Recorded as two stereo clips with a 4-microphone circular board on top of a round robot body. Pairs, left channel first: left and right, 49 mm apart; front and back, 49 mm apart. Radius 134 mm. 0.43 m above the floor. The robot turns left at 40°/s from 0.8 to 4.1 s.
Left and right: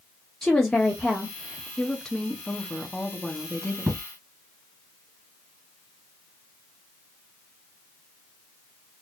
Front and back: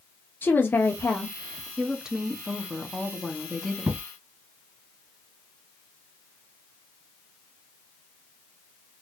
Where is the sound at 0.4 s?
10° left, 1.5 m; by 1.7 s 25° right, 1.5 m.